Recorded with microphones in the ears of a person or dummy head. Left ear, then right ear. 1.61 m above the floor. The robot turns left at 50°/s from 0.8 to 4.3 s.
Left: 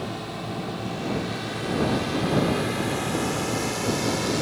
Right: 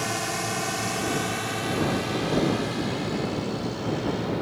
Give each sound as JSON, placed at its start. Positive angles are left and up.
{"t": 0.0, "sound": "a drone", "side_deg": -55}